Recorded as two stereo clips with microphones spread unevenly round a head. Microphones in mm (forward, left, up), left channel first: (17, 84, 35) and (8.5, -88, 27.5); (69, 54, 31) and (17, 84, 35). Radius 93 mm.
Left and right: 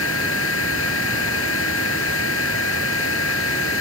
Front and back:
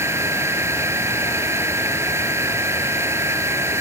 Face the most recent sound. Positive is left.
turn(degrees=105)